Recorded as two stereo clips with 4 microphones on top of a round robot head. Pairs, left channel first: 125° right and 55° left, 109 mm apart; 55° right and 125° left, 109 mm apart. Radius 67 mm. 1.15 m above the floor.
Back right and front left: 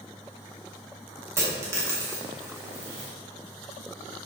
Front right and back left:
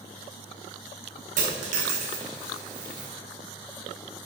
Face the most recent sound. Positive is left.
turn(degrees=120)